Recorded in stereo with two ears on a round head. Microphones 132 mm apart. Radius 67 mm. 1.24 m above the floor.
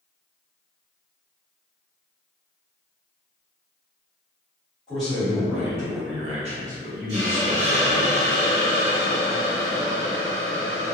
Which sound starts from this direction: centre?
A man speaking, at 4.9 s.